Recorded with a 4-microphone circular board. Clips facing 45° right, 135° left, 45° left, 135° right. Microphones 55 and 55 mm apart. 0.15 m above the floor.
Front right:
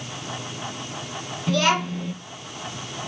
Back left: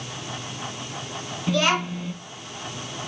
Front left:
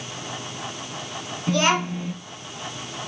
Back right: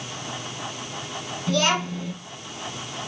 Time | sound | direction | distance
1.5 | a child speaking | 65° left | 0.8 m